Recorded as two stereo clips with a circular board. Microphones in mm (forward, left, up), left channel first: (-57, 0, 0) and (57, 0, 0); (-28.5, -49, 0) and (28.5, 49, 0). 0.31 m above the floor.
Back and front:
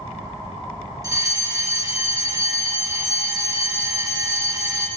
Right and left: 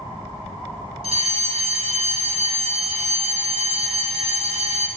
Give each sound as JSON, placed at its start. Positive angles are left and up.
{"t": 1.0, "sound": "a fire alarm", "azimuth_deg": 55, "distance_m": 4.0}